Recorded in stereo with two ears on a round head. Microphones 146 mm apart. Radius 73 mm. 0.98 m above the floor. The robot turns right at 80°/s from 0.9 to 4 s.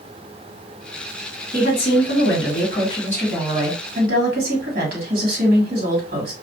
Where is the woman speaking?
40° left, 1.6 m; by 6.3 s 125° right, 1.6 m.